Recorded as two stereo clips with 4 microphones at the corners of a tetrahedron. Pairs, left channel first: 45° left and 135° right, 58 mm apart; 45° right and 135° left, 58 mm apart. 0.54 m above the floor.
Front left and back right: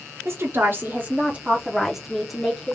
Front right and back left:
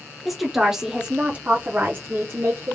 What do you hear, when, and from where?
0.2 s a woman speaking: 135° right, 1.1 m; by 2.8 s 120° left, 1.1 m